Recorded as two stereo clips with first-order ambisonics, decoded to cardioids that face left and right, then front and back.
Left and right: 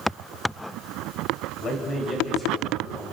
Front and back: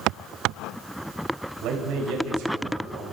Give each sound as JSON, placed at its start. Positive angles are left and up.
{"t": 1.6, "sound": "a man speaking", "azimuth_deg": 155, "distance_m": 4.5}